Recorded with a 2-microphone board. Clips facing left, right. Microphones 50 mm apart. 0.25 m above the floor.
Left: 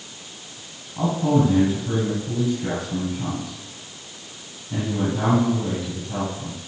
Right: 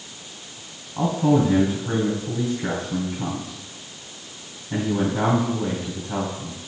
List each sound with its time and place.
1.0 s a man speaking: 35° right (ahead or behind), 2 m